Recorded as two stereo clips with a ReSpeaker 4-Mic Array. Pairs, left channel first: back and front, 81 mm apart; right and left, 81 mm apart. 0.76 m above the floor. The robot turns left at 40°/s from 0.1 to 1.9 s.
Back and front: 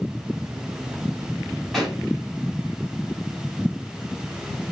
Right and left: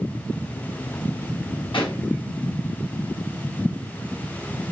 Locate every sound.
1.7 s a pop: 85° right, 3 m; by 2.0 s 95° right, 3 m